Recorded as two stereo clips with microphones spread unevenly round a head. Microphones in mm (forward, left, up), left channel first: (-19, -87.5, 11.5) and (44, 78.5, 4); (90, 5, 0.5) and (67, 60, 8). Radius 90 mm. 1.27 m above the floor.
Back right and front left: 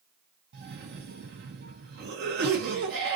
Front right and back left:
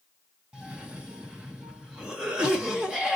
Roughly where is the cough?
Ahead left.